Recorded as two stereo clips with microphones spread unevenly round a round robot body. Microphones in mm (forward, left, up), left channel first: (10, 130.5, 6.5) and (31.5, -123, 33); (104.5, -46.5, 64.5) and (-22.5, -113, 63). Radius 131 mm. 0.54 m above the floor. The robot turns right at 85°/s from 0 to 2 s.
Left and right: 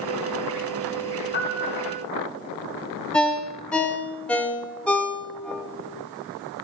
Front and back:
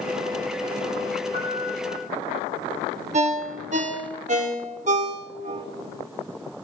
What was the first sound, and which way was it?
A piano, 150° left.